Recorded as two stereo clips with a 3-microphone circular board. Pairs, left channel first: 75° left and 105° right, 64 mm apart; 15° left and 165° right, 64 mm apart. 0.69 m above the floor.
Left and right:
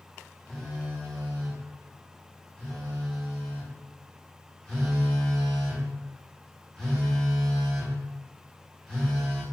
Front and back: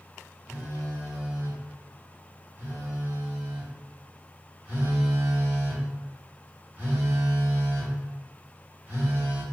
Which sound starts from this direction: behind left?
A phone buzzing, at 0.5 s.